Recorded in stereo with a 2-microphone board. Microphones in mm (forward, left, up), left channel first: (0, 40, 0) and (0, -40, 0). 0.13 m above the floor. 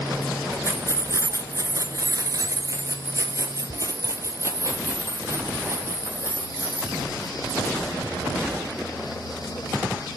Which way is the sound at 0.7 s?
30° right (ahead or behind).